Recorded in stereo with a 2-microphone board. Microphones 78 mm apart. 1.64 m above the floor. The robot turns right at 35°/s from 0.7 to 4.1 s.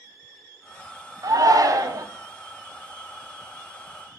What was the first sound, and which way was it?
A shout, 50° right (ahead or behind).